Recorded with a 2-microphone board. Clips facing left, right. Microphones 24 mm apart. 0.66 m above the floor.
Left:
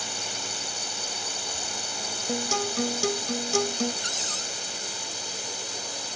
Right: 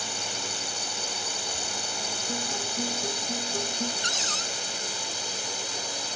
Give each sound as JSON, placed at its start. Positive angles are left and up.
{"t": 0.0, "sound": "a drone", "side_deg": 0}
{"t": 2.3, "sound": "a guitar", "side_deg": 80}
{"t": 4.0, "sound": "a cupboard door", "side_deg": -20}